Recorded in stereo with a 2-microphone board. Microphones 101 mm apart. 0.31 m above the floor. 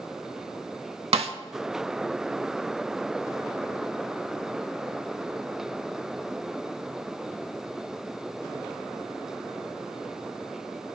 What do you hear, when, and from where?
1.1 s a snare drum: 80° right, 0.5 m